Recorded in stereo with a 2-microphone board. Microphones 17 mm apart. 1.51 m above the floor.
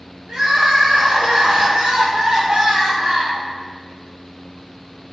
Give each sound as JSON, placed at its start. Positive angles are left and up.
{"t": 0.3, "sound": "crying", "side_deg": -70, "distance_m": 0.7}